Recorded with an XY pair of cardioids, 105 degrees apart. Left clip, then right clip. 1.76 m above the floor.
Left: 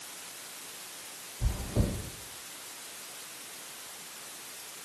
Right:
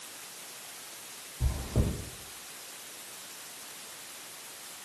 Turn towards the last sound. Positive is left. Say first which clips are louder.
# even
turn(degrees=-65)